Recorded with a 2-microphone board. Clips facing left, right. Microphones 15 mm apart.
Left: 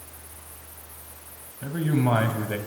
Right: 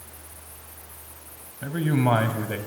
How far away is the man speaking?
About 2.5 m.